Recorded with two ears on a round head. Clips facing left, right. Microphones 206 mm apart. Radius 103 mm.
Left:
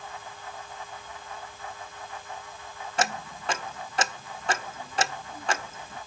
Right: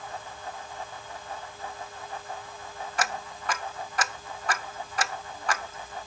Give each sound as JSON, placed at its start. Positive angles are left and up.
{"t": 3.0, "sound": "ticking", "side_deg": 25, "distance_m": 0.6}